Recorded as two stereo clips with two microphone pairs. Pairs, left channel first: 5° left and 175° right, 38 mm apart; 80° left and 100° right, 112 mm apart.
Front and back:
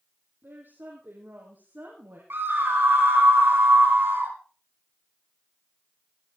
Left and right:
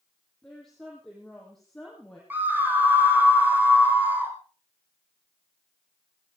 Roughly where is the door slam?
No door slam in this recording.